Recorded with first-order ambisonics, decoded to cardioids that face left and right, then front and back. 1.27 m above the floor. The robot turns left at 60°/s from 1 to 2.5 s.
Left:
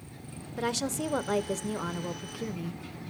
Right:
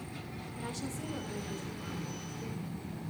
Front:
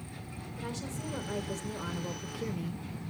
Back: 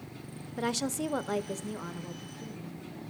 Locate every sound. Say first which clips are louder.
0.6 s a woman speaking: left 11 dB, back 9 dB; 135° left, 0.8 m; by 2.8 s 45° left, 0.8 m